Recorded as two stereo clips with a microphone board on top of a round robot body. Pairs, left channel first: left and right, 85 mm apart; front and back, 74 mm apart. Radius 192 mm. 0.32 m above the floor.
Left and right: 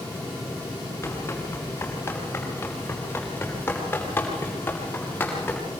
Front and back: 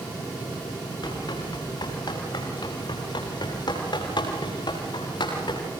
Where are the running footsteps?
30° left, 10 m; by 5.6 s 15° left, 11.5 m.